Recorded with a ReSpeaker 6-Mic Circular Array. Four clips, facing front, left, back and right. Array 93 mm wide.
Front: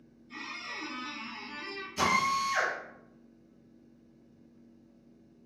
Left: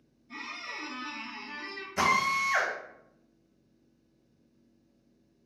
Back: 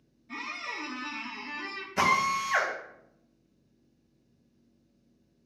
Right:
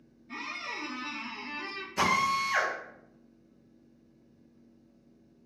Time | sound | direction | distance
0.3 | a squeak | 145° right | 0.6 m
2.0 | a drill | 165° left | 1.3 m